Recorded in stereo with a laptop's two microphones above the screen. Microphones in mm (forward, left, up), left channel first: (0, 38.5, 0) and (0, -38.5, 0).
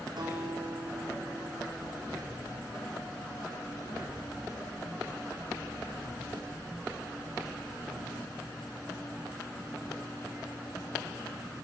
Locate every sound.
0.2 s a guitar: 75° right (ahead or behind), 3.5 m